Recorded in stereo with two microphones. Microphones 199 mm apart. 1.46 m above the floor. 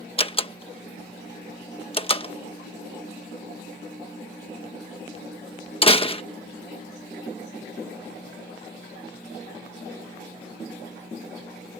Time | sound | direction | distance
0.2 | a door slam | 30° left (ahead or behind) | ?